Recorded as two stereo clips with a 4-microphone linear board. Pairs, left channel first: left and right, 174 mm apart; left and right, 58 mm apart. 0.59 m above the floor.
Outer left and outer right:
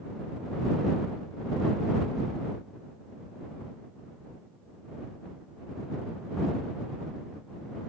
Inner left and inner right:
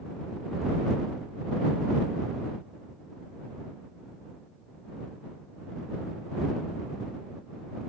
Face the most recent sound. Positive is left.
No sound to turn to.